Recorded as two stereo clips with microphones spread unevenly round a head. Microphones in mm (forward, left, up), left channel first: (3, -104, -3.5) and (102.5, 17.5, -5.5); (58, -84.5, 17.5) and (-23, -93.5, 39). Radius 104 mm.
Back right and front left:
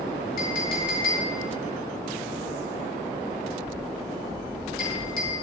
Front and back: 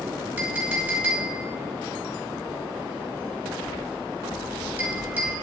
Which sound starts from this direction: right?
A clink, at 0.4 s.